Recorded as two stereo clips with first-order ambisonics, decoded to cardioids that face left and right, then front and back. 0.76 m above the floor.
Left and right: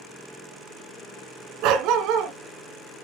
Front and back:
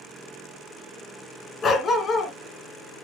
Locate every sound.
1.6 s a dog barking: 65° right, 1.9 m